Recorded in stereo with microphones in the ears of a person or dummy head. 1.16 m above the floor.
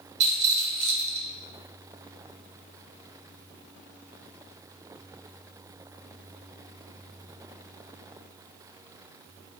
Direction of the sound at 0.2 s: 40° right (ahead or behind).